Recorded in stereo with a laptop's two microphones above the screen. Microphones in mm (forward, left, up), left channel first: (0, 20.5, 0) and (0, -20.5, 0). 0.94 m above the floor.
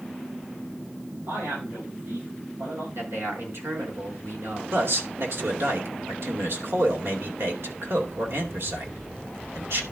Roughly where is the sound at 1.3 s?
Right.